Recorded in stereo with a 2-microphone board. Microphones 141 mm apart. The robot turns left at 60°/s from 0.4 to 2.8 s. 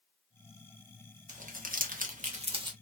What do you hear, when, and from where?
1.3 s crumpling: 60° right (ahead or behind), 0.9 m; by 2.7 s 30° right (ahead or behind), 0.9 m